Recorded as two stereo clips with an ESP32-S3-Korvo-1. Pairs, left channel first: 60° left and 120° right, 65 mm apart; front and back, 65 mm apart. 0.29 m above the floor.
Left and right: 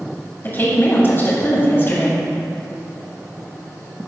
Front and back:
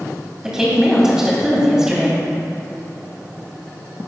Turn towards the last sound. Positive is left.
turn(degrees=105)